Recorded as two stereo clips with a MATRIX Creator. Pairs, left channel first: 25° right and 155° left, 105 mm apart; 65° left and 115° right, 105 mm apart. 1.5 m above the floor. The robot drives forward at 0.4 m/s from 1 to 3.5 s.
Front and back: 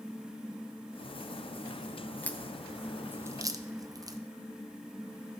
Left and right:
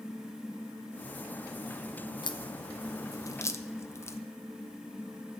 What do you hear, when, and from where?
2.2 s a crack: 50° left, 0.6 m; by 4.2 s 120° left, 0.6 m